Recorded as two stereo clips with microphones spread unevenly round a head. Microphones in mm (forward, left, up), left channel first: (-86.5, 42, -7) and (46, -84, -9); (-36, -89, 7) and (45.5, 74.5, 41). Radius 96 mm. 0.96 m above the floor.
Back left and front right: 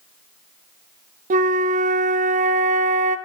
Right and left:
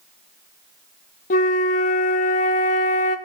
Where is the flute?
70° right, 0.5 m.